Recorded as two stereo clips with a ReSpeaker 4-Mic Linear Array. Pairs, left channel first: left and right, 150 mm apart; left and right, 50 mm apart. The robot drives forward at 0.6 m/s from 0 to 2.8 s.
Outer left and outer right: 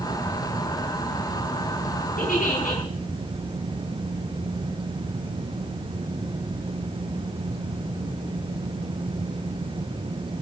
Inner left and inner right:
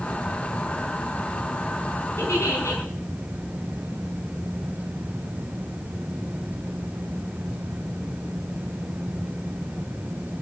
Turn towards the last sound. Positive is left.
turn(degrees=70)  # may be behind; listen again after turning